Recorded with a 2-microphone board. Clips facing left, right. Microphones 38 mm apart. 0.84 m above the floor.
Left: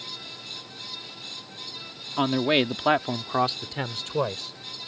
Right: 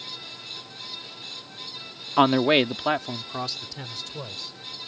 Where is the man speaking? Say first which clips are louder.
Right 4 dB; 35° right (ahead or behind); by 4.6 s 55° left (ahead or behind).